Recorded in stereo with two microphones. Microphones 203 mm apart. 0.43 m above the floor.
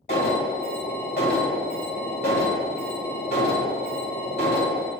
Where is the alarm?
55° left (ahead or behind), 3 m.